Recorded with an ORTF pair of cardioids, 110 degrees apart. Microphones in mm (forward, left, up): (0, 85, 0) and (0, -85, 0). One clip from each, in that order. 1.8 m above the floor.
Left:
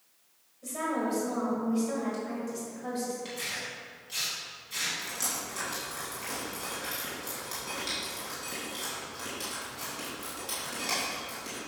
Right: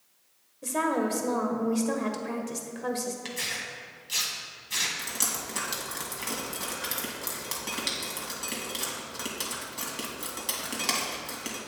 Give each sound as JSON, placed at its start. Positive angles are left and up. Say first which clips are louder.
{"t": 0.6, "sound": "a woman speaking", "louder": "right 4 dB", "azimuth_deg": -60, "distance_m": 1.5}
{"t": 3.2, "sound": "tearing paper", "louder": "right 3 dB", "azimuth_deg": -60, "distance_m": 2.0}
{"t": 5.0, "sound": "dripping", "louder": "right 2 dB", "azimuth_deg": -60, "distance_m": 2.5}